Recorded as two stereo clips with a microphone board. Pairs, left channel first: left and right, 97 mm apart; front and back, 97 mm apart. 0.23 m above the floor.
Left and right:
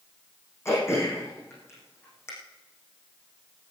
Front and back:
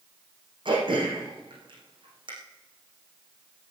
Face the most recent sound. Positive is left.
turn(degrees=150)